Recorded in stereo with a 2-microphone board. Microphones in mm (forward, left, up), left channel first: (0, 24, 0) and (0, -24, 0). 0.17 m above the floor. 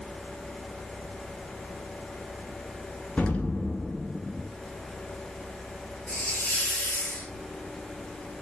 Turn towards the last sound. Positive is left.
turn(degrees=30)  # may be behind; listen again after turning